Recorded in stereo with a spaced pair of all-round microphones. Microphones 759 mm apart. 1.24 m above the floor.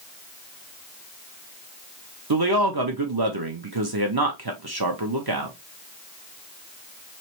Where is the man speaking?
30° right (ahead or behind), 0.8 m.